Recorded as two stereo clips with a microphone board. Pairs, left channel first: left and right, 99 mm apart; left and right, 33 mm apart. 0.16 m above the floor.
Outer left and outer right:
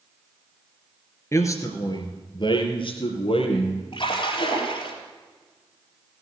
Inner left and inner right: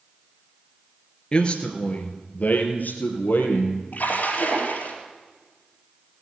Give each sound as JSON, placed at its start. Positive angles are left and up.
{"t": 1.3, "sound": "a man speaking", "side_deg": 30, "distance_m": 2.0}
{"t": 3.9, "sound": "a splash", "side_deg": 55, "distance_m": 4.0}